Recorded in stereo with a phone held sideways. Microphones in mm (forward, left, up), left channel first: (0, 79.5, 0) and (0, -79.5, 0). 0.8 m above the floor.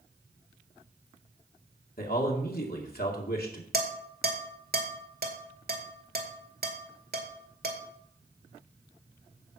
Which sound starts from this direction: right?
Dishes clattering, at 3.7 s.